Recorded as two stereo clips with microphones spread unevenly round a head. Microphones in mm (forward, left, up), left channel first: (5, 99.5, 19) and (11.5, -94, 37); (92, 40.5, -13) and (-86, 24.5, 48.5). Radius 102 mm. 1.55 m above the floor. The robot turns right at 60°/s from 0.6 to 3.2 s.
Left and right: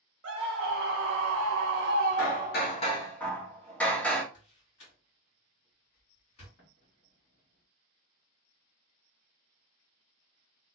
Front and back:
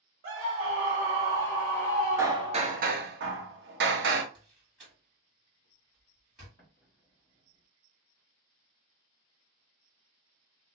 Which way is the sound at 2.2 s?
115° left.